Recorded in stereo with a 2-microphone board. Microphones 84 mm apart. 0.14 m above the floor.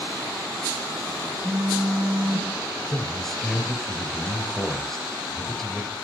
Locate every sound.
1.4 s a phone buzzing: 5° right (ahead or behind), 4.5 m
2.9 s a man speaking: 5° left (ahead or behind), 2.5 m